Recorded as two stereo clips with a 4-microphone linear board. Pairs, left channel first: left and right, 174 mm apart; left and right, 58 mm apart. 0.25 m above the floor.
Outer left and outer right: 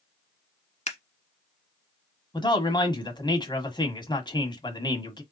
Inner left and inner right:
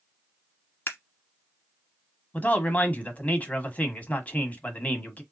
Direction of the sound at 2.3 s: 25° left (ahead or behind).